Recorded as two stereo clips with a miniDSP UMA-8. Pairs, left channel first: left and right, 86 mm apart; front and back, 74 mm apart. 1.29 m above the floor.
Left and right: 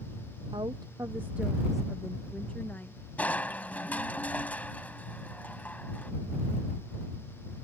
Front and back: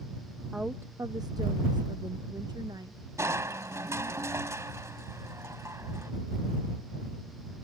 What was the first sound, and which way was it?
A woman speaking, 100° right.